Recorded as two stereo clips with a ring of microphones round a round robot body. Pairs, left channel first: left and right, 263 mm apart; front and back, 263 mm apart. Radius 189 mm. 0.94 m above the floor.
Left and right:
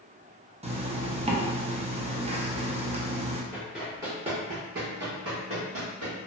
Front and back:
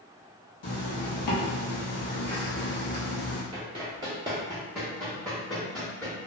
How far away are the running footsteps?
About 0.9 m.